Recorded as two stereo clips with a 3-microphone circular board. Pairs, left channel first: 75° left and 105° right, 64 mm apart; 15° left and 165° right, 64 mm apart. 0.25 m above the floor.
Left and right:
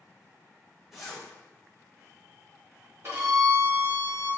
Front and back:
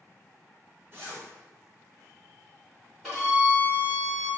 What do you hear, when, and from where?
0.9 s a zipper: 170° left, 1.2 m
3.0 s a violin: 85° right, 1.9 m